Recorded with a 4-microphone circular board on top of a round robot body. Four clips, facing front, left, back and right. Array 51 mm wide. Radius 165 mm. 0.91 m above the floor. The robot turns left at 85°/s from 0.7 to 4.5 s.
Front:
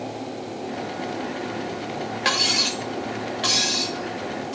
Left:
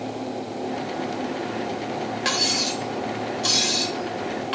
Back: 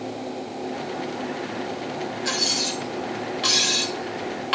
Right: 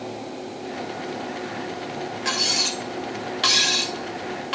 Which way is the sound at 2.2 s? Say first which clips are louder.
Even, front 6 dB; 10° left.